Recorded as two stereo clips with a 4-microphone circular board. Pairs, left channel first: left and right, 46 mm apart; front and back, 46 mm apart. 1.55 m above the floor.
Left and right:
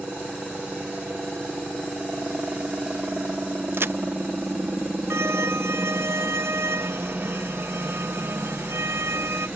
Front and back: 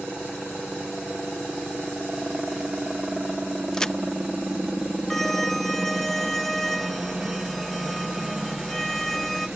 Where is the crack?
70° right.